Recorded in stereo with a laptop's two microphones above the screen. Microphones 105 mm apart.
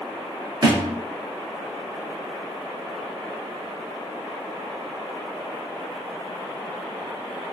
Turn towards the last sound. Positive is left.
turn(degrees=-40)  # may be behind; listen again after turning